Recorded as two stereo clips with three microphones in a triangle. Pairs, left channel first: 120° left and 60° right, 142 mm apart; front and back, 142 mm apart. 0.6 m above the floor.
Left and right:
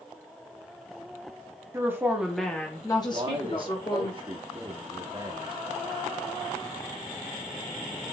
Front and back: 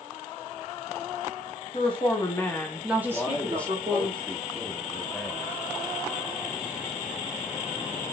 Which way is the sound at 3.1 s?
75° right.